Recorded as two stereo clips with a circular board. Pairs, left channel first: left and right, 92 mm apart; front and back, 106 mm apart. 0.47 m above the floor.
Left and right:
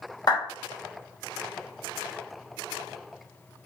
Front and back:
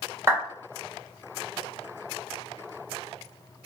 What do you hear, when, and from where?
0.3 s a clap: 120° left, 1.3 m